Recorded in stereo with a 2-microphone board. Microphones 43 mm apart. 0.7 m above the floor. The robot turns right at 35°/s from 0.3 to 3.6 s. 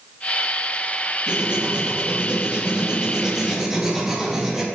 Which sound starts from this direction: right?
Writing, at 1.3 s.